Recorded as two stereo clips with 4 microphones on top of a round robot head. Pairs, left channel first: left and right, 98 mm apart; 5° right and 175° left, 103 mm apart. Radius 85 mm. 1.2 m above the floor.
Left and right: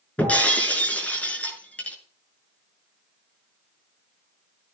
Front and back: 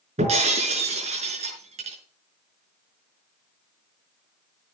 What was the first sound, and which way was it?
Breaking glass, 165° left.